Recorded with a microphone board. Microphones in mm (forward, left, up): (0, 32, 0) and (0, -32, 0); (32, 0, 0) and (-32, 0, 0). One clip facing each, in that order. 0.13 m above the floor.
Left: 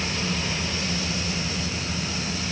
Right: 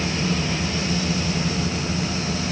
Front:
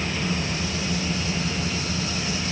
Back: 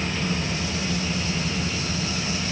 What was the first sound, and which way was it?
Only background noise.